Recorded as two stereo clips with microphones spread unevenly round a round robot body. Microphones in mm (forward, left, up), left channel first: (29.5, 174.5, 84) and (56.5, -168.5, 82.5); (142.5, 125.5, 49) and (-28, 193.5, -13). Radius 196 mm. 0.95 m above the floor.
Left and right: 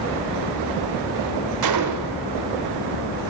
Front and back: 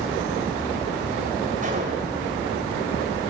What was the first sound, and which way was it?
A gunshot, 130° right.